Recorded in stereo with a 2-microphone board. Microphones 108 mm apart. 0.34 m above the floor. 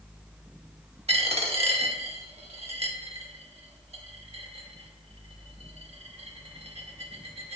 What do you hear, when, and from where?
1.1 s a dropped coin: 65° right (ahead or behind), 0.6 m